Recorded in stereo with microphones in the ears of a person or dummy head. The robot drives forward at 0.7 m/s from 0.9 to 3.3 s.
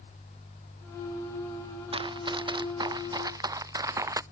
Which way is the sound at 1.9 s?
25° right (ahead or behind).